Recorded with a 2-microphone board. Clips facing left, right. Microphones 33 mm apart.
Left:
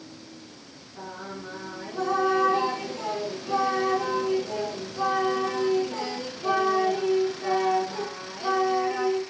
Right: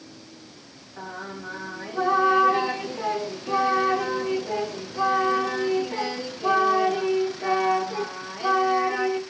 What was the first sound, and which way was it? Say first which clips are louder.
Singing: right 2 dB; 20° right (ahead or behind).